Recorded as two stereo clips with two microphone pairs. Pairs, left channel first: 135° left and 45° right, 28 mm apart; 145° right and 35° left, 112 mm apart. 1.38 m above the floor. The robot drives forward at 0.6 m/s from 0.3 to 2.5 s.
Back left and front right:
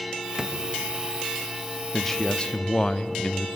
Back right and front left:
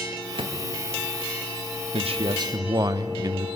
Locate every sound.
0.4 s a drawer: 15° left, 0.9 m; by 0.5 s 20° left, 0.8 m
1.9 s a man speaking: 45° left, 0.6 m; by 3.6 s 80° left, 0.5 m